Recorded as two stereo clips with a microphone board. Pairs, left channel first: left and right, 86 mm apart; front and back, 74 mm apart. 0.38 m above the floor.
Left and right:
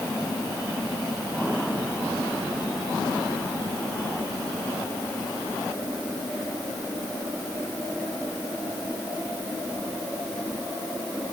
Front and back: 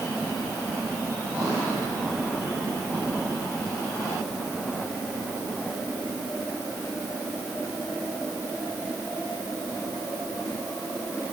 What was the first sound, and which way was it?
Only background noise.